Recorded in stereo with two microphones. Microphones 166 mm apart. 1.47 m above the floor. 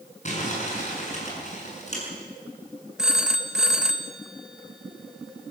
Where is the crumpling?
45° left (ahead or behind), 7 m.